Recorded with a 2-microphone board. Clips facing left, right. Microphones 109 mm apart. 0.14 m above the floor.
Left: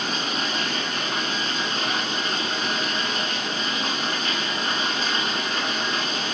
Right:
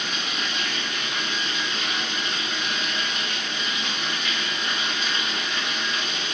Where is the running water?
40° left (ahead or behind), 2.5 m.